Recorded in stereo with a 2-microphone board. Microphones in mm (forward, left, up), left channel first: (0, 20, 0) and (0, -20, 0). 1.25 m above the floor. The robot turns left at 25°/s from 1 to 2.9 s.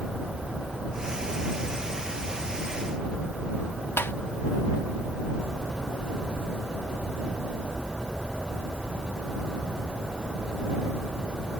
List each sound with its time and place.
4.0 s tapping: 75° left (ahead or behind)